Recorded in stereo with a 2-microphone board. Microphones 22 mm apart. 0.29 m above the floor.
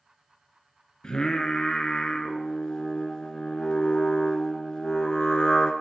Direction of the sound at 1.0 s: 40° left (ahead or behind).